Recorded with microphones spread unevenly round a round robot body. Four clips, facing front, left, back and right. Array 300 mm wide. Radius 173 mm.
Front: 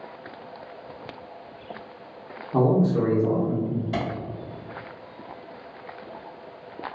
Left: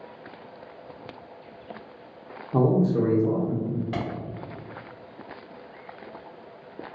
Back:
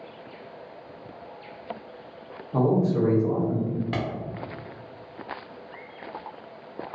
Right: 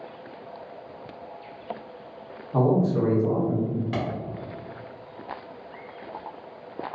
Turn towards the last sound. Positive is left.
turn(degrees=-160)